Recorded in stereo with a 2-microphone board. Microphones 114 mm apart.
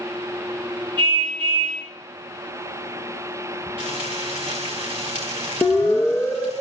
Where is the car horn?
45° right (ahead or behind), 10 m.